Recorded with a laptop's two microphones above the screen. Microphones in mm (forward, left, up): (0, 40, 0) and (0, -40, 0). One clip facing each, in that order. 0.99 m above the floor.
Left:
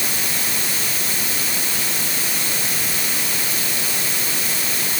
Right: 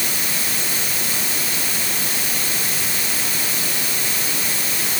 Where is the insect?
No insect in this recording.